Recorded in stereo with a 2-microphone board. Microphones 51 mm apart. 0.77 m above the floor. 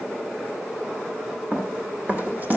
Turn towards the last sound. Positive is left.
turn(degrees=-35)  # may be behind; listen again after turning